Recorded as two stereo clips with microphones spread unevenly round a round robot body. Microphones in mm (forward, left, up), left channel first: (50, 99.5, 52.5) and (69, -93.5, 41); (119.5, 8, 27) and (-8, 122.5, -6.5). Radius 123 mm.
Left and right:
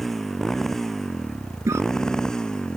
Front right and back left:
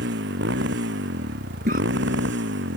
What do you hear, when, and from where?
0.0 s a motorcycle: 175° right
1.7 s a cough: 165° right